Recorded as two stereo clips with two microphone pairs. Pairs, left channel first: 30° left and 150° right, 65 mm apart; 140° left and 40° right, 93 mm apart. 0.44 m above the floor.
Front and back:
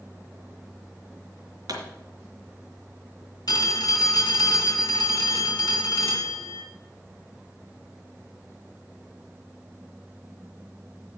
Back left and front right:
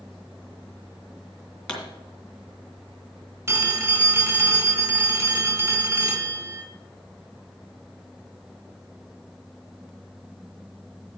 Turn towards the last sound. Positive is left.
turn(degrees=20)